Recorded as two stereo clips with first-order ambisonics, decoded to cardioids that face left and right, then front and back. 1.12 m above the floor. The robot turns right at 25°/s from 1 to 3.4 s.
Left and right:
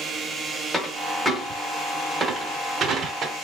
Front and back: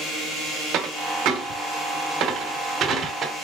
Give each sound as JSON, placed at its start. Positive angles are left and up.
{"t": 0.7, "sound": "a dropped coin", "azimuth_deg": 175, "distance_m": 1.0}